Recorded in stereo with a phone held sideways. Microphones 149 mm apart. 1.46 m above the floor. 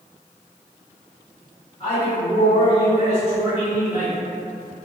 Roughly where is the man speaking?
Left.